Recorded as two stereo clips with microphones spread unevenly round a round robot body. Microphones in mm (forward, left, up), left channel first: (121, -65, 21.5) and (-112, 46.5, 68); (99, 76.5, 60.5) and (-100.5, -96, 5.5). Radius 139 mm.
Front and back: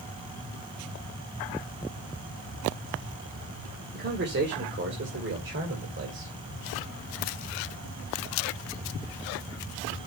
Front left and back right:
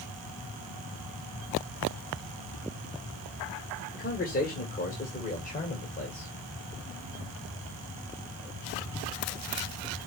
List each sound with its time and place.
3.9 s a man speaking: 100° left, 1.8 m; by 6.3 s 105° left, 3 m